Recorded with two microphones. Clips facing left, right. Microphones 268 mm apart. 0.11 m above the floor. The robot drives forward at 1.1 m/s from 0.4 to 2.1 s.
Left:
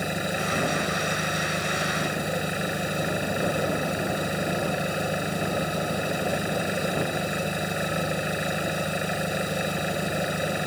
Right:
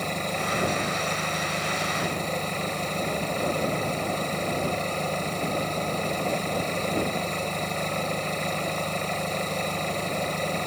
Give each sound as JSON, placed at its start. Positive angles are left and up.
{"t": 0.0, "sound": "an engine running", "side_deg": 10}